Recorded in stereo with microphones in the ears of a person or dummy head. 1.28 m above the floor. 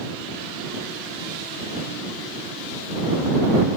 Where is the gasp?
No gasp in this recording.